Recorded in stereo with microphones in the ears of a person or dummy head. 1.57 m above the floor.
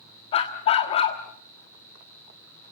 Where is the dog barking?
35° left (ahead or behind), 1.3 m.